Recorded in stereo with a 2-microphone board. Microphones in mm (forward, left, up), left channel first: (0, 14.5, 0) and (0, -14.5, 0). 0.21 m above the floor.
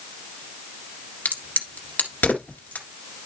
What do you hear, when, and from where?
1.2 s a crack: 65° left (ahead or behind), 1.7 m